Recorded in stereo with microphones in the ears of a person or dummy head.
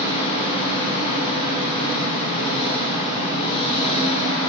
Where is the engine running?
25° left (ahead or behind), 9.5 m.